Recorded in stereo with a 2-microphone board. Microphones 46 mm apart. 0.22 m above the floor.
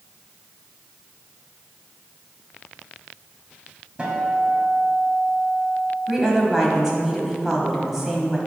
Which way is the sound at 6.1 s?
10° right (ahead or behind).